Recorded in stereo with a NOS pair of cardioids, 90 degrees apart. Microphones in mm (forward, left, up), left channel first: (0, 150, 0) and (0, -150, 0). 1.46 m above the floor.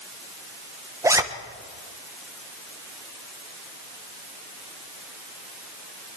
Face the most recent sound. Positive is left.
turn(degrees=-10)